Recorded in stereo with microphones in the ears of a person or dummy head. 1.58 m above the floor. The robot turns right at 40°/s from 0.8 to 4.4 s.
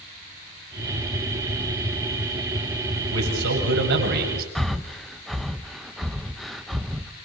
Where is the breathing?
Centre (ahead or behind), 0.8 m.